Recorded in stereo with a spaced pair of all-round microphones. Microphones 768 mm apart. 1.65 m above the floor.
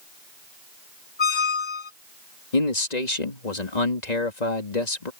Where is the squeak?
70° left (ahead or behind).